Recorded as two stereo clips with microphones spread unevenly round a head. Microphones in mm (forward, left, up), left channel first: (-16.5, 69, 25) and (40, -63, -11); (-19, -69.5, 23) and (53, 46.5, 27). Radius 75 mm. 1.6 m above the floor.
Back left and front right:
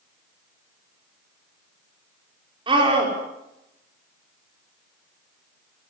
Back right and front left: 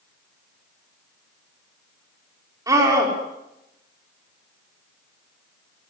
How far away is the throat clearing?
I don't hear throat clearing.